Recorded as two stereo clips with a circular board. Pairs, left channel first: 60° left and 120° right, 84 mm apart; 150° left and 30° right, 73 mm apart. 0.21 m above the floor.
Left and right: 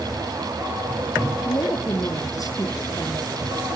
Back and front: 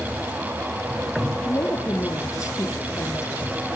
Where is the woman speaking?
105° left, 7 m.